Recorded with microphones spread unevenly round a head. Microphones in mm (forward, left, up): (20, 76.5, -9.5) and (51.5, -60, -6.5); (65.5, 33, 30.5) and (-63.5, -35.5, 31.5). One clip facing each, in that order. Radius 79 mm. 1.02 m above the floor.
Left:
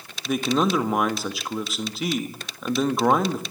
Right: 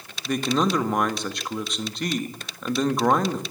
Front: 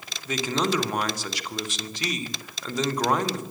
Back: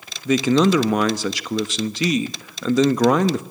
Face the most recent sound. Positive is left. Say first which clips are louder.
# left 1 dB, back 10 dB
turn(degrees=-170)